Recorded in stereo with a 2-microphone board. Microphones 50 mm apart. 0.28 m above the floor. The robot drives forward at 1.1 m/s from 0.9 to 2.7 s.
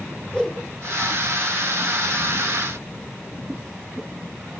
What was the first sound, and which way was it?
A whoosh, 15° left (ahead or behind).